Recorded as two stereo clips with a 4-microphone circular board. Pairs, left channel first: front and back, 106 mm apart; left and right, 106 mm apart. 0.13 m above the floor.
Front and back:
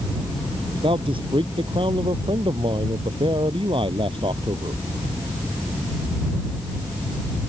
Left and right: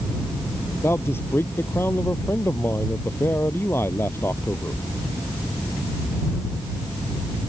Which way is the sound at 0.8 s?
155° left.